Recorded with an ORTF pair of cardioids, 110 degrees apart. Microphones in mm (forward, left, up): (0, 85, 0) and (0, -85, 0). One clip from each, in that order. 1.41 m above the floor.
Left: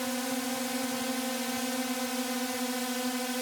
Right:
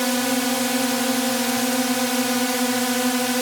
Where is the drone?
70° right.